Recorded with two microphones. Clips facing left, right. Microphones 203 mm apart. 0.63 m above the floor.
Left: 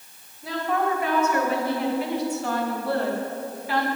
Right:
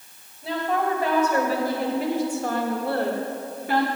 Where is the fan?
I don't hear a fan.